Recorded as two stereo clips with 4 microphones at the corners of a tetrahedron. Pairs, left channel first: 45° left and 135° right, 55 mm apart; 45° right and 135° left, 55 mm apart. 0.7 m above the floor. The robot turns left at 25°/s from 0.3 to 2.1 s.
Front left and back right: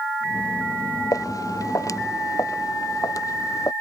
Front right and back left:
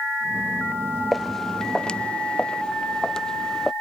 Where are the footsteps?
45° left; by 3.7 s 35° left.